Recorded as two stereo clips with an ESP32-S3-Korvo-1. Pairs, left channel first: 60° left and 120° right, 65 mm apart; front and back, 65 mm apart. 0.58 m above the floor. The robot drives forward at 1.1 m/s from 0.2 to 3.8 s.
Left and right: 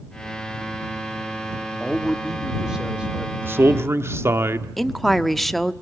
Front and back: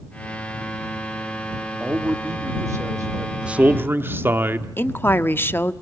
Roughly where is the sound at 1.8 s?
Behind left.